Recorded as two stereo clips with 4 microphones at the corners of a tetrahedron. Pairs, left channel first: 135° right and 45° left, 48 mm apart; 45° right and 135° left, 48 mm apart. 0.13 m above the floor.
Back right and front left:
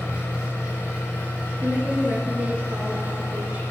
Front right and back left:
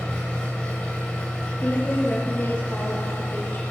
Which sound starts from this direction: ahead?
A woman speaking, at 1.6 s.